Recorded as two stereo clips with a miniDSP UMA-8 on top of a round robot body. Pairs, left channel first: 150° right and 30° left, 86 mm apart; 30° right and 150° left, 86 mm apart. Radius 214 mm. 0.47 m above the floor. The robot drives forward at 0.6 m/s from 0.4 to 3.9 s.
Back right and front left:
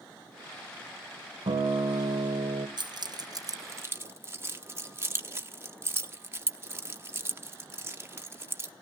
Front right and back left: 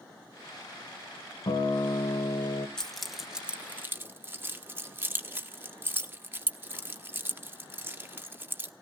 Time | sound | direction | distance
1.5 | a guitar | 5° left | 2 m
2.8 | keys jangling | 55° left | 1.3 m